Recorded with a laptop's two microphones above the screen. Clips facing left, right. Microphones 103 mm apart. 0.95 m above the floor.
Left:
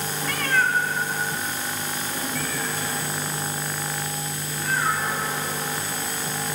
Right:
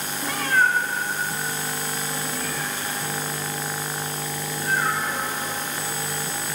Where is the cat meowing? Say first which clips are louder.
Right 2 dB; 20° right (ahead or behind), 0.8 m; by 5.5 s 10° right (ahead or behind), 5.5 m.